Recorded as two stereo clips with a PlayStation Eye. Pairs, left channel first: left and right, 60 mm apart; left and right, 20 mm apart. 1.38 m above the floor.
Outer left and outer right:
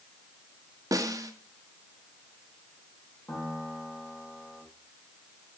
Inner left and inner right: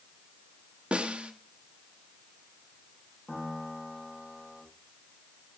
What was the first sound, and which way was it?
A snare drum, 70° right (ahead or behind).